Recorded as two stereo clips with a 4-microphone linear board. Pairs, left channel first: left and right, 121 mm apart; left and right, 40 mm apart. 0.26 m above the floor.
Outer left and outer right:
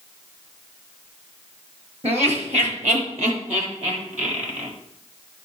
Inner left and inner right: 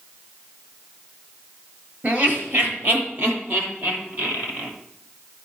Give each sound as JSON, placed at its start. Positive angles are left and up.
{"t": 2.0, "sound": "laughter", "side_deg": -55, "distance_m": 5.0}